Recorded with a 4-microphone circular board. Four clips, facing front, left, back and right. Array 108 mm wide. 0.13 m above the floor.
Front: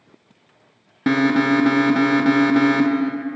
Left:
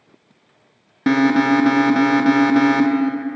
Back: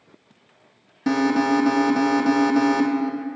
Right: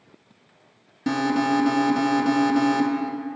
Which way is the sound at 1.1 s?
50° left.